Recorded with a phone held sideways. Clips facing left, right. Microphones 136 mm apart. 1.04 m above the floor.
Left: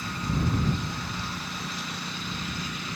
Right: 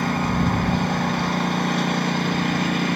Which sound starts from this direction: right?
A lawn mower, at 0.0 s.